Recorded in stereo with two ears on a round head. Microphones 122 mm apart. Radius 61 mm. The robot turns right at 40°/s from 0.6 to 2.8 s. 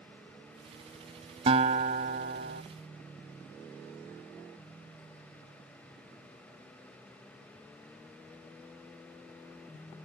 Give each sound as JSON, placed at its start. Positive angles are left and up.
{"t": 1.5, "sound": "a guitar", "azimuth_deg": -135}